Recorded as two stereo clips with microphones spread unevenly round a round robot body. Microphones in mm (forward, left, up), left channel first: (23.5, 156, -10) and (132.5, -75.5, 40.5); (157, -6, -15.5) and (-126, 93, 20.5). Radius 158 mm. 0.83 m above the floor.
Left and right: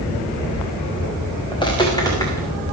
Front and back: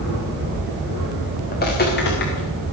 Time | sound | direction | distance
1.5 | footsteps | 40° left | 5 m